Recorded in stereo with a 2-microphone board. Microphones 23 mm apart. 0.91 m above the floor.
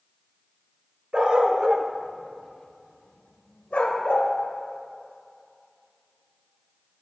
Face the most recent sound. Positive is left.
turn(degrees=80)